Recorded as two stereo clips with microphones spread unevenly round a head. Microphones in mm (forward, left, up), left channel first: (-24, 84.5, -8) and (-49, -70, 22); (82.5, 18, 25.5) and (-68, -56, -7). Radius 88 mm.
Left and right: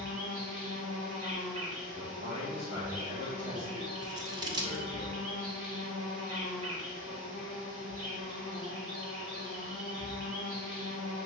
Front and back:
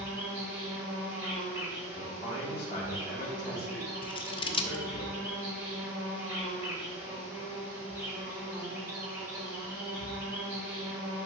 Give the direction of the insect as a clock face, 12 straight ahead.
2 o'clock.